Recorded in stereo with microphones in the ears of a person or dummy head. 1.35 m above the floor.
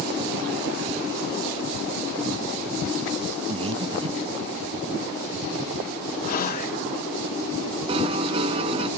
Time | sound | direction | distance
3.5 | breathing | 35° right (ahead or behind) | ?
6.2 | whispering | 50° left (ahead or behind) | ?
7.9 | a piano | 30° right (ahead or behind) | ?